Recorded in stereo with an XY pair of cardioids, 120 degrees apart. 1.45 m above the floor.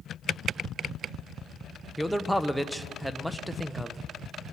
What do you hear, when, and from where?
2.0 s a man speaking: 5° right, 0.6 m